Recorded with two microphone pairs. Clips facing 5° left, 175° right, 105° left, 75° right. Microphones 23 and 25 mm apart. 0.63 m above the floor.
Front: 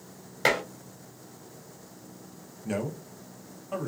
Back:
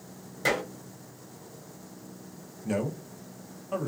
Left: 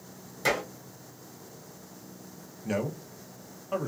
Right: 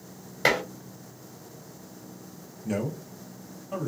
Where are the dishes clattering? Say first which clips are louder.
Front 2 dB, right 4 dB; 35° right, 1.2 m.